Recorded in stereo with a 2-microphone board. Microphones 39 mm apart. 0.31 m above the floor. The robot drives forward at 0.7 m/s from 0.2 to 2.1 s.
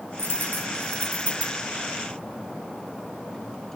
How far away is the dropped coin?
About 2.5 m.